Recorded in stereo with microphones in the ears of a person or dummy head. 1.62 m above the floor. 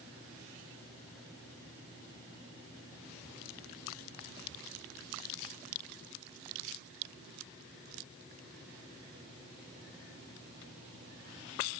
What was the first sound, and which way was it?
Only background noise.